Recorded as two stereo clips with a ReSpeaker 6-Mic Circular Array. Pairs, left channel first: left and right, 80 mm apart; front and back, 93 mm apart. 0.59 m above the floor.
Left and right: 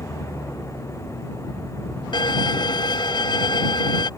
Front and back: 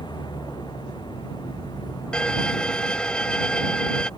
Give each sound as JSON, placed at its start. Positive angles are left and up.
{"t": 0.0, "sound": "an engine running", "azimuth_deg": 35}
{"t": 2.1, "sound": "a violin", "azimuth_deg": 80}